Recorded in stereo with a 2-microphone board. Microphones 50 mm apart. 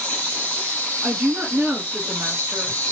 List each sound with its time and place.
0.0 s an insect: 30° left (ahead or behind), 1.2 m
1.0 s a woman speaking: 40° right (ahead or behind), 1.7 m